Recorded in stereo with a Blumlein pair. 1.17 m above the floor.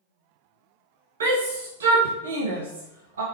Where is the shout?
65° right, 0.6 m.